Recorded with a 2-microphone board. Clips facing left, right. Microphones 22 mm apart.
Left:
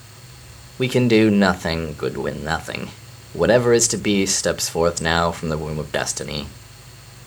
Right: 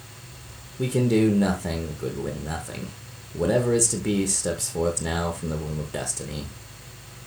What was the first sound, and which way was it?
A man speaking, 55° left (ahead or behind).